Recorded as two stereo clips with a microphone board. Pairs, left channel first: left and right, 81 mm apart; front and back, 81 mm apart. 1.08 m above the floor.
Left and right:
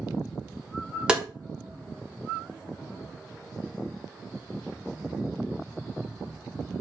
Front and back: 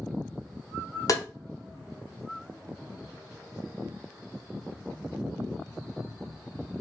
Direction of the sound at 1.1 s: 15° right.